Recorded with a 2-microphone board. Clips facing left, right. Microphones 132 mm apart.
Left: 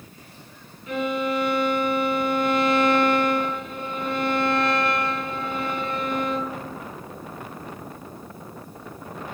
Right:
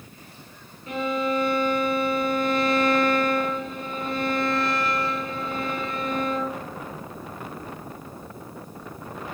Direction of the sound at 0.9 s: 35° right (ahead or behind).